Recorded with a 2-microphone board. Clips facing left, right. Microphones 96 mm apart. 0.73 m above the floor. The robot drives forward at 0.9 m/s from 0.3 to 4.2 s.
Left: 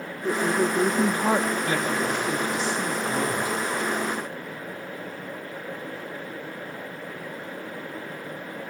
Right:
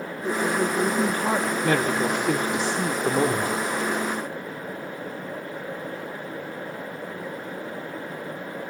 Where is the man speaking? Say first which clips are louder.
Right 3 dB; 65° right (ahead or behind), 2.5 m; by 3.6 s 55° right (ahead or behind), 3 m.